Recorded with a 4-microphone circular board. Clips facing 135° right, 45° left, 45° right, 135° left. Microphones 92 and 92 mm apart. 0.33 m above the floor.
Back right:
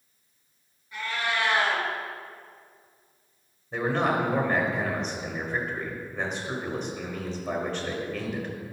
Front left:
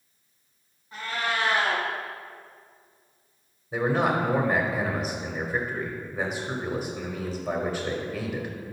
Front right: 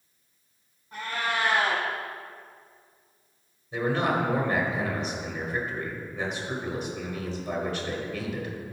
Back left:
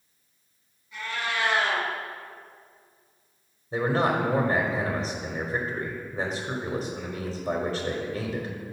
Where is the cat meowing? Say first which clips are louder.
Even, front right 1 dB; 15° right, 1.5 m.